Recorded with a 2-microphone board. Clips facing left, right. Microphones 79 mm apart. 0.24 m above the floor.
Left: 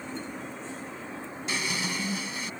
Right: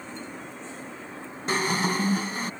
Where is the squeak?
45° right (ahead or behind).